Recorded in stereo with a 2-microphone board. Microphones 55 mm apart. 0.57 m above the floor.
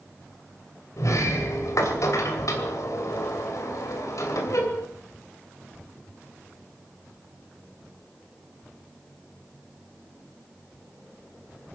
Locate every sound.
1.0 s a sliding door: 70° left (ahead or behind), 2.5 m